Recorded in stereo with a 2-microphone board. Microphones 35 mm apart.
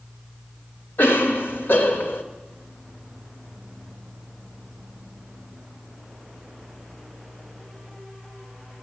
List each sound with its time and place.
1.0 s a cough: 75° left (ahead or behind), 2 m